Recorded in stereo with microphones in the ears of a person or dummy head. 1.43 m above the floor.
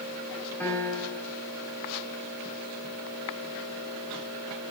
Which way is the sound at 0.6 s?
10° left (ahead or behind).